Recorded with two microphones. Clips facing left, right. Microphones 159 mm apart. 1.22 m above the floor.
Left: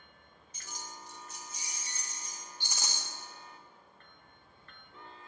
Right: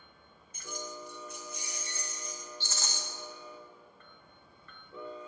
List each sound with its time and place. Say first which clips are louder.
0.5 s keys jangling: right 7 dB; 50° right (ahead or behind), 0.5 m; by 2.4 s 55° right (ahead or behind), 1.6 m
2.6 s a rattle: left 1 dB; 15° left (ahead or behind), 0.7 m